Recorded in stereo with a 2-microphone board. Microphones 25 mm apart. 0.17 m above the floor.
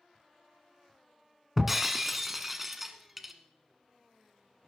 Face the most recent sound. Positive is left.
turn(degrees=-5)  # may be behind; listen again after turning